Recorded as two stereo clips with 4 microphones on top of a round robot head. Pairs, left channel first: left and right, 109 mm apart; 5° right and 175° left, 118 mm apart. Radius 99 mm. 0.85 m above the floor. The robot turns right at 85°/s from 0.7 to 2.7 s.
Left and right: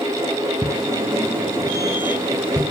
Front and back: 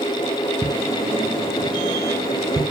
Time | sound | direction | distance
0.6 | footsteps | 150° right | 0.8 m